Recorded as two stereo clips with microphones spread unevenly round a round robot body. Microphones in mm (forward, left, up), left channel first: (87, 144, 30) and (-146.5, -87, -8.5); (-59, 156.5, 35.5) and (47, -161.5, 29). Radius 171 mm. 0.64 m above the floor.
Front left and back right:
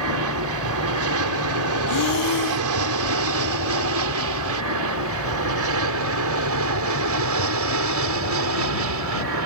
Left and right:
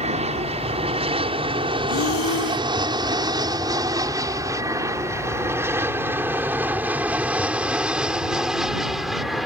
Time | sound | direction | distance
0.0 | an aircraft | 135° right | ?
1.9 | breathing | 65° left | ?